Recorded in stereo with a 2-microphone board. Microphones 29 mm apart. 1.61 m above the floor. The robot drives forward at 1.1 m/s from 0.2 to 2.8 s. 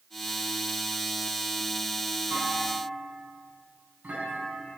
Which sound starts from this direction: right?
A clunk, at 2.3 s.